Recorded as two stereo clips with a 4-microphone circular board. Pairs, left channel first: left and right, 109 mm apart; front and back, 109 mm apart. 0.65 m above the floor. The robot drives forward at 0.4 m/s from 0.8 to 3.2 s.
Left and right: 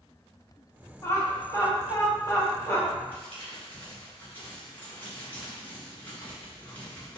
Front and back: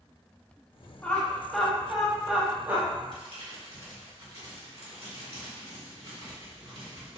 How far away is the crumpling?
About 2.0 m.